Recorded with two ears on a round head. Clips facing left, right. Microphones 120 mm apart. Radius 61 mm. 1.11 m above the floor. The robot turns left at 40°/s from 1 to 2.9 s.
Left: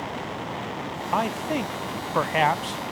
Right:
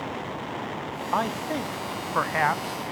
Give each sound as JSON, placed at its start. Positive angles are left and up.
{"t": 1.1, "sound": "a man speaking", "side_deg": 5, "distance_m": 0.6}